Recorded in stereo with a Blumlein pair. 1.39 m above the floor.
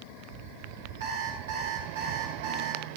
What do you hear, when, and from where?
1.0 s an alarm clock: 60° right, 5.5 m